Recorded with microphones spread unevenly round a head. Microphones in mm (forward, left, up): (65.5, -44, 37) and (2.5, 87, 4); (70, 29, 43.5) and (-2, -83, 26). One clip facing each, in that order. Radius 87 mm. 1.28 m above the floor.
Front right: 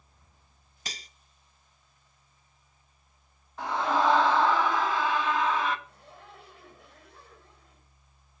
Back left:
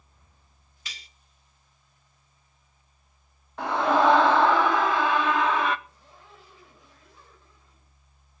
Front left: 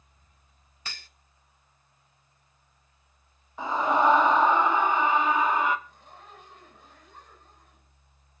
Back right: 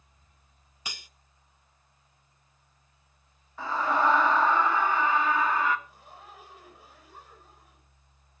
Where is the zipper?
40° right, 6 m.